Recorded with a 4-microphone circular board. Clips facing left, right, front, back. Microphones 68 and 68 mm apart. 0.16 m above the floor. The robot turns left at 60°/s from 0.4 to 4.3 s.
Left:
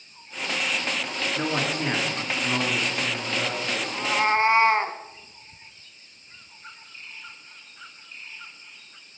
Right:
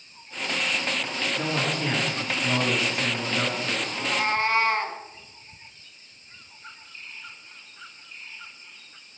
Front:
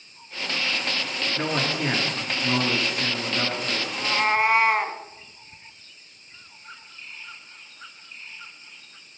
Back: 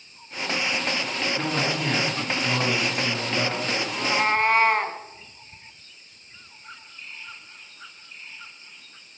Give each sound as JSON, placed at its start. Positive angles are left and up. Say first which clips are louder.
{"t": 1.4, "sound": "a man speaking", "louder": "left 1 dB, front 2 dB", "azimuth_deg": 75, "distance_m": 2.5}
{"t": 3.9, "sound": "a cat meowing", "louder": "left 5 dB, even", "azimuth_deg": 110, "distance_m": 0.6}